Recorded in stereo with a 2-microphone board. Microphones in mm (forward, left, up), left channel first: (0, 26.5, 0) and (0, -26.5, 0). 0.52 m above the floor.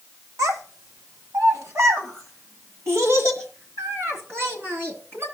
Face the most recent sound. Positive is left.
turn(degrees=-50)  # may be behind; listen again after turning